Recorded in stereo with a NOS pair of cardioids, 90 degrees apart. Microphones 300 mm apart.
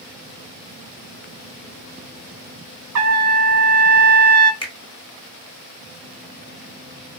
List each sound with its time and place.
3.0 s a trumpet: 60° right, 0.7 m
4.6 s a finger snap: 15° left, 1.2 m